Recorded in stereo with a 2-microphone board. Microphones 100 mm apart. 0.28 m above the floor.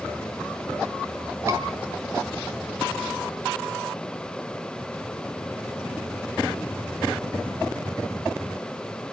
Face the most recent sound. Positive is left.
turn(degrees=-30)  # may be behind; listen again after turning